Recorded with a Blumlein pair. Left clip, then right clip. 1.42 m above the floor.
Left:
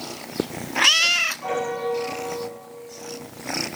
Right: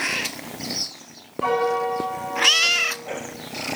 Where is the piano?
65° right, 8.5 m.